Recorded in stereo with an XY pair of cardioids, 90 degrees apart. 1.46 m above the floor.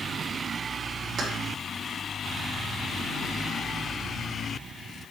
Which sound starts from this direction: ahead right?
Keys jangling, at 1.2 s.